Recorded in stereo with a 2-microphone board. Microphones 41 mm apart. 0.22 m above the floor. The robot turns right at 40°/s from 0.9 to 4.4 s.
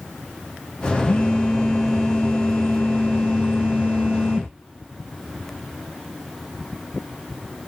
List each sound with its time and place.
1.1 s a phone buzzing: 20° left (ahead or behind), 1.8 m; by 4.5 s 25° right (ahead or behind), 1.8 m